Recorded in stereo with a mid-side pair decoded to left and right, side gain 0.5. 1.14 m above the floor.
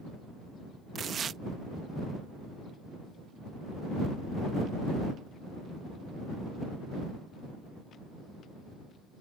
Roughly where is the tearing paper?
Ahead right.